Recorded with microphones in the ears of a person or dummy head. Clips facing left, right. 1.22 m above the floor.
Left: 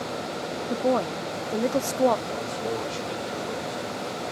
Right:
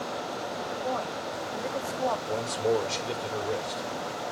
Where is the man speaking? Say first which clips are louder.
Right 3 dB; 75° right (ahead or behind), 4.5 m.